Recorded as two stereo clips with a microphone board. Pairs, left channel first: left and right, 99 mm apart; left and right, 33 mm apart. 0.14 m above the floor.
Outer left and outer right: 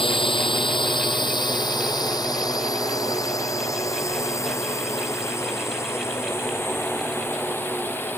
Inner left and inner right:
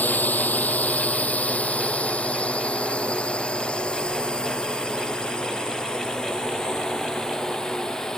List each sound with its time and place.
0.0 s a drone: 60° left (ahead or behind); by 8.2 s 20° left (ahead or behind)